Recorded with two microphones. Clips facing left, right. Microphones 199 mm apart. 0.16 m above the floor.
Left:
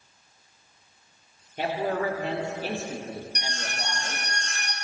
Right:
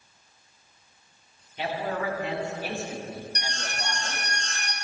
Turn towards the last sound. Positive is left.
turn(degrees=15)  # may be behind; listen again after turning